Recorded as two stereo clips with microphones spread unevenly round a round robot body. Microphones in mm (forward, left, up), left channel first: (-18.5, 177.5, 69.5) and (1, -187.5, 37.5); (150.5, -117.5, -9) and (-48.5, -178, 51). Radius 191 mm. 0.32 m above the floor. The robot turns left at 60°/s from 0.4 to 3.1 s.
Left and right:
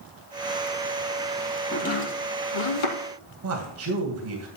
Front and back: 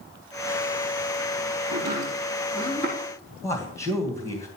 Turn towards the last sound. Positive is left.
turn(degrees=-45)